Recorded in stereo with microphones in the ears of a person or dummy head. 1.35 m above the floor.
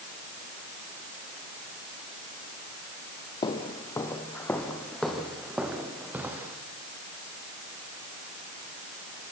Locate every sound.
3.4 s footsteps: 20° left (ahead or behind), 3 m; by 6.5 s 15° right (ahead or behind), 5 m